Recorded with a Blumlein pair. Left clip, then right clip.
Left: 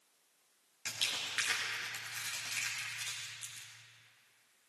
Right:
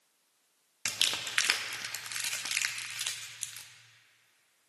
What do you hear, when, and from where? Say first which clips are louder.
0.8 s crumpling: right 5 dB; 60° right, 1.1 m